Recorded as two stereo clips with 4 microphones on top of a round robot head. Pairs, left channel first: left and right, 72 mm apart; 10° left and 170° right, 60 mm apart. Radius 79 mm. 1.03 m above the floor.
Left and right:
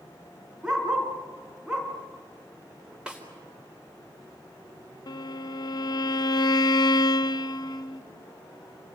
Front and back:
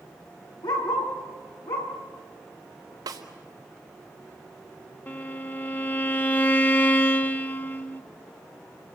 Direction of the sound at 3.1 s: 170° right.